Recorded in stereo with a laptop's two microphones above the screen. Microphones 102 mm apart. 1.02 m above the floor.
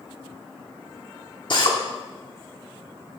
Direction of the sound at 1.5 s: 50° left (ahead or behind).